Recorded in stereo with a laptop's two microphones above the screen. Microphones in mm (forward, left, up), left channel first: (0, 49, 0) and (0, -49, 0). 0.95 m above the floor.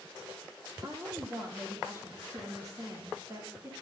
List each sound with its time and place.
0.8 s a woman speaking: 35° right (ahead or behind), 1.8 m